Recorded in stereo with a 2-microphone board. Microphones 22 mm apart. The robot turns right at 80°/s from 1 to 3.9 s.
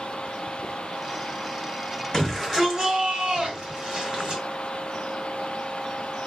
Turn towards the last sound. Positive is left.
turn(degrees=-50)